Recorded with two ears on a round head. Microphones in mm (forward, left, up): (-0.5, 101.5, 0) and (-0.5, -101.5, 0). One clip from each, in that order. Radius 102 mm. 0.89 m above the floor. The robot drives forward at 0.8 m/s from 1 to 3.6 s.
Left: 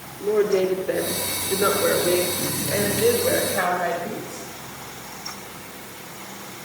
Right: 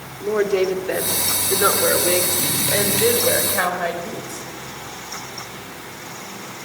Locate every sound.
0.2 s a woman speaking: 45° right (ahead or behind), 3 m; by 4.5 s 25° right (ahead or behind), 4.5 m